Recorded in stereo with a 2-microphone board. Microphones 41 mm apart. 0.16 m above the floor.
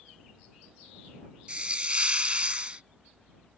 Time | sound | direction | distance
1.5 | a hiss | 30° right (ahead or behind) | ?